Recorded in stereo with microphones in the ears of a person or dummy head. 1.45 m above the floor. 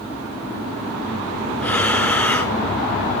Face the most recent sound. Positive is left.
turn(degrees=15)  # may be behind; listen again after turning